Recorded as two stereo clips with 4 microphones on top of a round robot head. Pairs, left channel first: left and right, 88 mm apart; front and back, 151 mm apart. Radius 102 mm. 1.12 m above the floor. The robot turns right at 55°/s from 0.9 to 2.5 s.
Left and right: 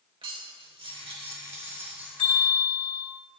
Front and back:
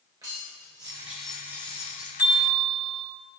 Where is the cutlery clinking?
110° right, 2.5 m; by 2.1 s 40° right, 2.5 m.